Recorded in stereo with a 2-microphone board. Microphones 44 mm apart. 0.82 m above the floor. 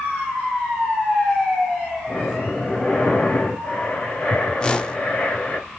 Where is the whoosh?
20° left (ahead or behind), 0.5 m.